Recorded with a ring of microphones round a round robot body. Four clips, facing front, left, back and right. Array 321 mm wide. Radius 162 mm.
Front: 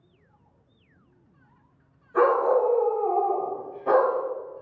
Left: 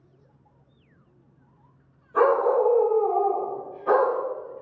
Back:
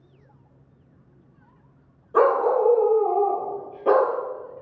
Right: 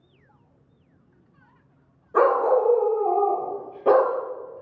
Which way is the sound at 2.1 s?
140° right.